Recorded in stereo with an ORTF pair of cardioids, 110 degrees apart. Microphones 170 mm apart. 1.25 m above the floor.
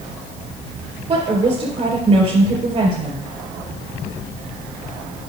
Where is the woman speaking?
40° right, 4 m.